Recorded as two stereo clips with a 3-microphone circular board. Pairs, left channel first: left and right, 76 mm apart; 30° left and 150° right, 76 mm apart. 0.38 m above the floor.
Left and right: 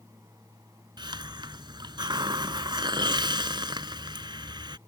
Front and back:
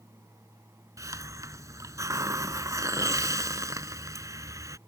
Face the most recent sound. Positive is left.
turn(degrees=-105)